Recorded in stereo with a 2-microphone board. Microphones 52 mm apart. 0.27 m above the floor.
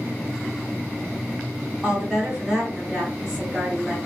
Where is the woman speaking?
10° right (ahead or behind), 2.5 m.